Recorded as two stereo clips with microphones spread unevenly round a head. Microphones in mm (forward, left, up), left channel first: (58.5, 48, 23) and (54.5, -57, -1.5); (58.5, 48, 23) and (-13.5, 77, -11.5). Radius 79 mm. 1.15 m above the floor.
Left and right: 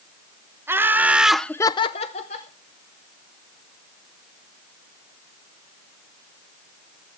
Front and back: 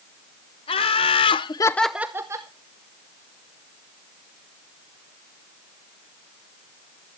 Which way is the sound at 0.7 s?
25° right.